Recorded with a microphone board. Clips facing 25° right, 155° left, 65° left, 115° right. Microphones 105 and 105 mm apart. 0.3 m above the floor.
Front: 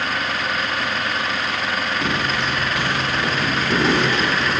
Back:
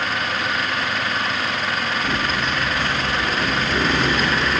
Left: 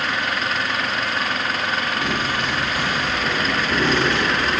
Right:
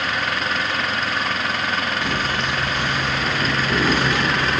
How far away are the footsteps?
About 4 m.